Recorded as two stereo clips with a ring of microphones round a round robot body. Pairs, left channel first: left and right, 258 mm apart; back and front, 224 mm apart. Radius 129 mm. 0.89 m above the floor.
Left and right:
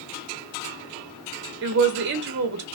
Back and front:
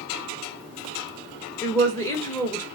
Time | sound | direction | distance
1.6 | a woman speaking | 105° right | 0.7 m